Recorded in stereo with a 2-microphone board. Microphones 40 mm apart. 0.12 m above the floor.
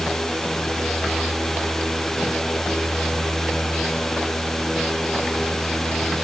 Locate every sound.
Only background noise.